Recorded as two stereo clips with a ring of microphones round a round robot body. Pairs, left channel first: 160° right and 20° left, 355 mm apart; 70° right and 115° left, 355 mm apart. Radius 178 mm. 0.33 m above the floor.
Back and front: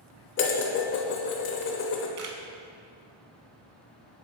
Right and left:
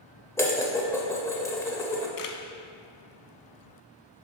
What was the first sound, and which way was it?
Dishes clattering, 145° right.